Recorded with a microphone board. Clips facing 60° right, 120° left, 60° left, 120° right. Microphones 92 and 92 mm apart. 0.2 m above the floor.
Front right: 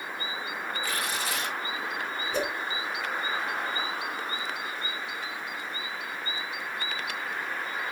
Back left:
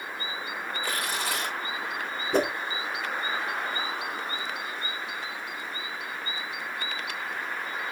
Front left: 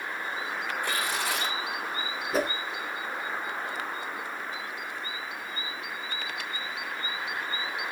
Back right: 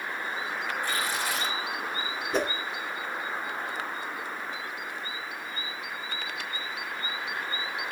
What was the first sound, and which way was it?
Tearing paper, 90° left.